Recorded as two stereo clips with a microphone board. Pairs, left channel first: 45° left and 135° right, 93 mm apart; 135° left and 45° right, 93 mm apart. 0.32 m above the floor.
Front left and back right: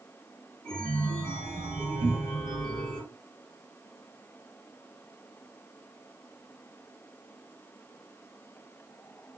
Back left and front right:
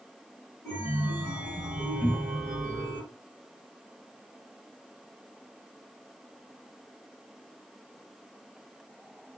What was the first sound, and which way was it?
A chime, 10° right.